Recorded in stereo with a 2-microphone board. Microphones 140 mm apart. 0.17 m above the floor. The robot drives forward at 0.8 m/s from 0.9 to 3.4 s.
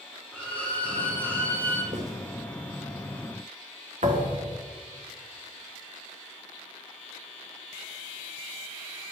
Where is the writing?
55° right (ahead or behind), 2 m.